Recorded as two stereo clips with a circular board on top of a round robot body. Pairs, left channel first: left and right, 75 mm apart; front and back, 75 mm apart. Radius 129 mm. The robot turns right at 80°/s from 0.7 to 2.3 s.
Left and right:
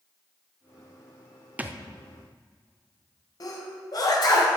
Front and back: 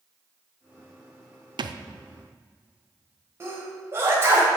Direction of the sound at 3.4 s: 125° left.